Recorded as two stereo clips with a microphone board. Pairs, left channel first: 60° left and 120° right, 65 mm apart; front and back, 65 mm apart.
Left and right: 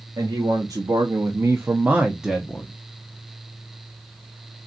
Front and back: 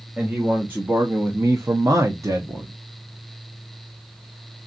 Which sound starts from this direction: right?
A man speaking, at 0.2 s.